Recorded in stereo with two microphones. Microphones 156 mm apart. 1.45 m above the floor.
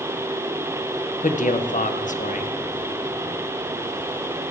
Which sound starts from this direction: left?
A man speaking, at 1.2 s.